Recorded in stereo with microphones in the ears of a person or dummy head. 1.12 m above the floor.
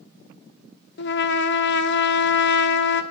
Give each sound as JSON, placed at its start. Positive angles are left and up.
{"t": 1.0, "sound": "a trumpet", "side_deg": 50, "distance_m": 0.5}